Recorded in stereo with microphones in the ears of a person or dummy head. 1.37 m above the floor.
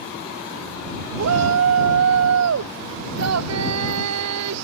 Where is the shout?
75° right (ahead or behind).